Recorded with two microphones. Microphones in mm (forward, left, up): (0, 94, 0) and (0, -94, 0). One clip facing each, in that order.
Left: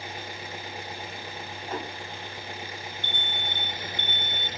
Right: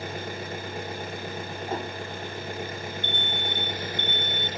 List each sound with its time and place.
0.0 s an engine running: 55° right (ahead or behind), 1.5 m
1.7 s a whoosh: 30° right (ahead or behind), 1.3 m
3.0 s an alarm: 20° right (ahead or behind), 2.0 m